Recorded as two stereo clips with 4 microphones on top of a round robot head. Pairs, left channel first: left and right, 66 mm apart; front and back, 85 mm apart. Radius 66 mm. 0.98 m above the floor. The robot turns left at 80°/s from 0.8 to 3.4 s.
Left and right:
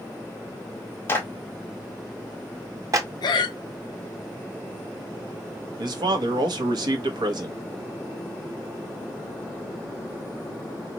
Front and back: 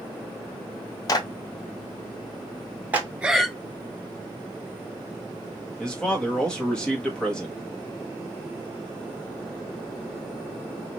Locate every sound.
1.1 s a clap: 35° left, 1.0 m; by 3.1 s 120° right, 1.0 m
3.2 s breathing: 100° left, 0.6 m; by 3.5 s 85° left, 0.6 m
5.8 s a man speaking: 85° right, 1.0 m